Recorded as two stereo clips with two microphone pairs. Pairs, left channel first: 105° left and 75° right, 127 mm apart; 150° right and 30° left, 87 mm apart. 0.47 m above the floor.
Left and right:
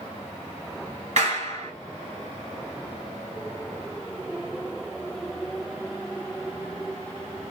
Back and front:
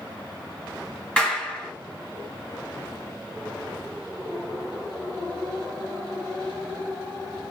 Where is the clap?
75° right, 2 m.